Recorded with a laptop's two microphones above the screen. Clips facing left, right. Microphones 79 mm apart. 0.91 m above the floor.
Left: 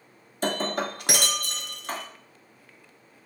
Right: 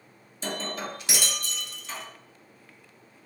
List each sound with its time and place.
0.4 s breaking glass: 55° left (ahead or behind), 0.6 m